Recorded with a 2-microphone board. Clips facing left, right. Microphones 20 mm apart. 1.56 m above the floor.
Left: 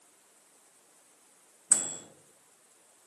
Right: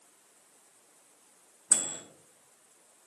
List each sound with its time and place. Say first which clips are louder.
1.7 s a microwave: even; 50° right (ahead or behind), 0.7 m